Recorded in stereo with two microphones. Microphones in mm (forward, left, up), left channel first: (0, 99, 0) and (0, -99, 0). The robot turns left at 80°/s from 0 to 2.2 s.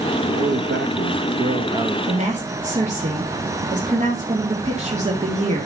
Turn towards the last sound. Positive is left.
turn(degrees=-35)  # may be behind; listen again after turning